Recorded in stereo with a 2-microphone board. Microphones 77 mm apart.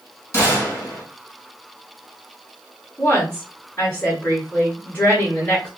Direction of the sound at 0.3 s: 30° left (ahead or behind).